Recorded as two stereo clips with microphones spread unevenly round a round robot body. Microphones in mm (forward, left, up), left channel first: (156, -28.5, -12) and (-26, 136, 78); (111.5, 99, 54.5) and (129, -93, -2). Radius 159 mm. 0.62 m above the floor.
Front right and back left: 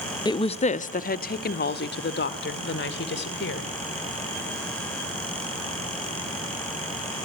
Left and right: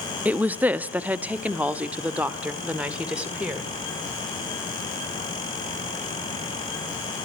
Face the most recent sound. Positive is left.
turn(degrees=-5)